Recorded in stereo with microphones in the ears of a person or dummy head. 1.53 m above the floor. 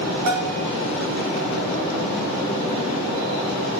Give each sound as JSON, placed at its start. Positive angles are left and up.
{"t": 0.3, "sound": "a bell", "side_deg": -60, "distance_m": 3.0}